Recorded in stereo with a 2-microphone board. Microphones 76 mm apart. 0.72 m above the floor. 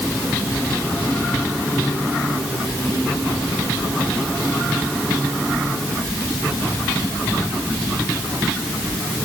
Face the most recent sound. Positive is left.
No sound to turn to.